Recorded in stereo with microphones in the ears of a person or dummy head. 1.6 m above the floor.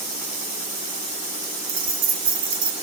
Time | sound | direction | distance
1.7 | keys jangling | 70° right (ahead or behind) | 2.5 m